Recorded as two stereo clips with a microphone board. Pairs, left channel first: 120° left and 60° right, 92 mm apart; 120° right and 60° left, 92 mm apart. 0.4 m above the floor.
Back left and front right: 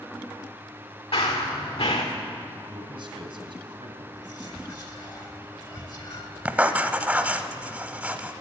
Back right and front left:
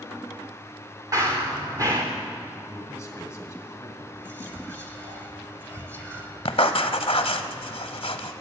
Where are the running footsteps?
110° left, 2 m.